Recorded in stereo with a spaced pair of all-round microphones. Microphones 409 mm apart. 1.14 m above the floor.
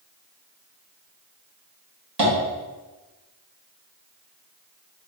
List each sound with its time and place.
2.2 s tapping: 75° right (ahead or behind), 1.7 m